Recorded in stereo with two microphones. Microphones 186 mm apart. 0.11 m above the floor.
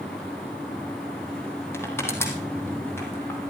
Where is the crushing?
15° left (ahead or behind), 3.5 m.